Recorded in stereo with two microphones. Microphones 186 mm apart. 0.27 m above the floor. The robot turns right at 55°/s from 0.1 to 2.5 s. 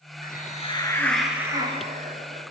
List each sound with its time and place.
0.2 s a hiss: 125° left, 4.5 m; by 2.4 s 115° right, 4.5 m